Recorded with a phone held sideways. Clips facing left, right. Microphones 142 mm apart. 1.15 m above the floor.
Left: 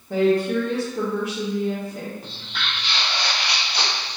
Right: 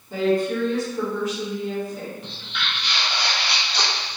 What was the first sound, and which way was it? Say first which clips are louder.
A woman speaking: left 2 dB; 60° left (ahead or behind).